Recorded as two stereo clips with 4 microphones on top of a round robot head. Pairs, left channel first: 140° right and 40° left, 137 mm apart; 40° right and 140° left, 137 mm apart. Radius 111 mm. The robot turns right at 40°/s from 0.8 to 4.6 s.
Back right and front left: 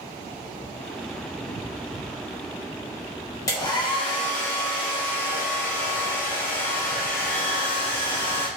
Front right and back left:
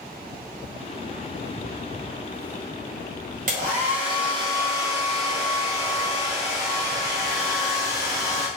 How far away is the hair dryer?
About 0.8 m.